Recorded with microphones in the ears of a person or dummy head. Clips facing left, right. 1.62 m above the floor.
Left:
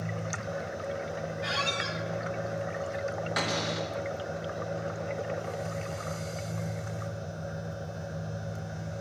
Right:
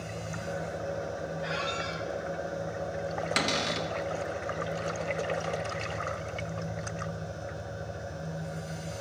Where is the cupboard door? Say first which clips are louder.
Right 1 dB; 40° right (ahead or behind), 1.1 m.